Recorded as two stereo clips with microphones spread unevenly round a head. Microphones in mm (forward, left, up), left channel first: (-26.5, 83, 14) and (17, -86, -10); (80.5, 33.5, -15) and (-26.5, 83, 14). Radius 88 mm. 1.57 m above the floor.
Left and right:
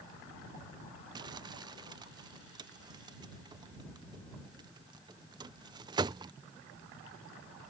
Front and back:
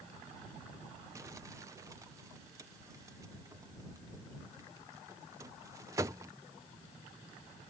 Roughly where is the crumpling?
Behind right.